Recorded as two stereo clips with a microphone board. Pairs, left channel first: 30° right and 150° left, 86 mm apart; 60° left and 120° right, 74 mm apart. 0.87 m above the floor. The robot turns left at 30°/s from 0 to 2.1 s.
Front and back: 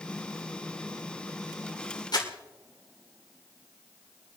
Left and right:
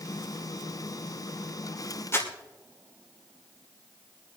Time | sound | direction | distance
2.1 | crumpling | 5° left | 2.5 m